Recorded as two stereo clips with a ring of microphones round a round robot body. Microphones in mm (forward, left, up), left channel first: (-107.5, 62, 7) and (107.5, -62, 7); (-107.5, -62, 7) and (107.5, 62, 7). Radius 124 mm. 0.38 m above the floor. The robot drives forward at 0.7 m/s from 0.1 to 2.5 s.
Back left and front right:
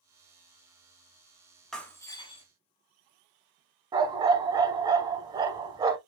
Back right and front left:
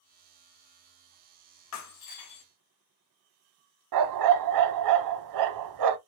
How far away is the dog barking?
About 0.6 m.